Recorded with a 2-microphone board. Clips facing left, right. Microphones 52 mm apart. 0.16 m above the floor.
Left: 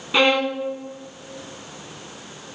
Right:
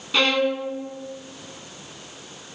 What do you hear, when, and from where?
0.1 s a violin: 20° left (ahead or behind), 0.8 m